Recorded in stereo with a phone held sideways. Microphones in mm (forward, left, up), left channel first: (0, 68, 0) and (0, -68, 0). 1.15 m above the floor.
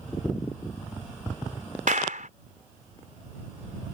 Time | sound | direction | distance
1.9 | a clap | 80° right | ?